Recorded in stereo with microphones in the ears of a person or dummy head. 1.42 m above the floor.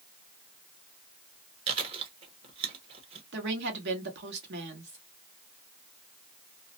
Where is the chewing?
30° right (ahead or behind), 0.9 m.